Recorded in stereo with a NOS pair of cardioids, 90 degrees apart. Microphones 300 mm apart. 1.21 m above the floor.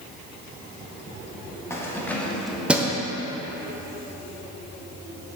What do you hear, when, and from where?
1.7 s keys jangling: 10° left, 1.2 m; by 3.0 s 15° right, 0.6 m